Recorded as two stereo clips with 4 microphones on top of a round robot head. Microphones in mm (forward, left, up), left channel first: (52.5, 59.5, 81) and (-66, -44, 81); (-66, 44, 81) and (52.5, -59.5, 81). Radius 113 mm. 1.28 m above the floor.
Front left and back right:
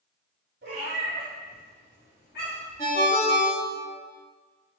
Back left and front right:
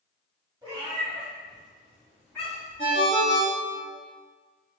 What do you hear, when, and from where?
0.6 s a cat meowing: 105° right, 1.1 m; by 2.8 s 60° left, 2.5 m
2.8 s a ringtone: 100° left, 0.9 m